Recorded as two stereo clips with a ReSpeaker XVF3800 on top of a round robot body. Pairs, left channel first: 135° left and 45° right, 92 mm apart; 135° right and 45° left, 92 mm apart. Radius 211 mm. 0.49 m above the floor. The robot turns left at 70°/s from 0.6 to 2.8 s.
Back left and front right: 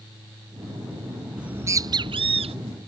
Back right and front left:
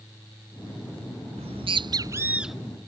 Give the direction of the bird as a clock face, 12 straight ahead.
11 o'clock.